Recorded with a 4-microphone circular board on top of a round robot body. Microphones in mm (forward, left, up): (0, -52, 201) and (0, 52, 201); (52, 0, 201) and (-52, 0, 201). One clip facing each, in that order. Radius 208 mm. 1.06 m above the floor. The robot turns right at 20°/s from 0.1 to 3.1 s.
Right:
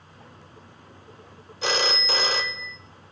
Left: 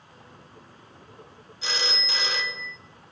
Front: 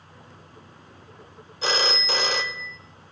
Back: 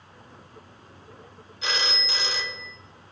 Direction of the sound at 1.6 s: 55° right.